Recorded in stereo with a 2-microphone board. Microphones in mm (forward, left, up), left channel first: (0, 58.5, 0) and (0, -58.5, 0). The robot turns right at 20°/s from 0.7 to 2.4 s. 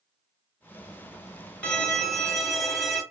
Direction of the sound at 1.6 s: 10° left (ahead or behind).